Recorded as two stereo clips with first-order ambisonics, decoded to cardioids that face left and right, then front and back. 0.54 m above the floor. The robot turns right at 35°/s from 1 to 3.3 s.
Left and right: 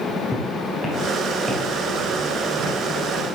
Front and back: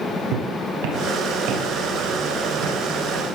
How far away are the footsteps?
About 4.5 m.